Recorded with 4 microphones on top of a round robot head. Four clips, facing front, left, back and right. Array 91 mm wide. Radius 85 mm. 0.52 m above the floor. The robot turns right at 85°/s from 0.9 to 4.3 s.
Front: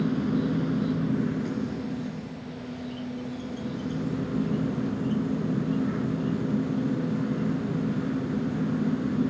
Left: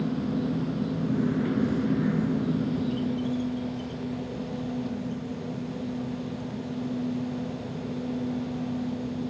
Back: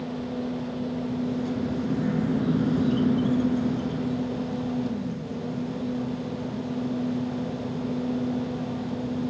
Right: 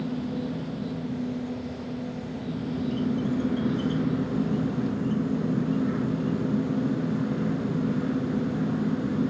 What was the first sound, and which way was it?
An insect, 20° left.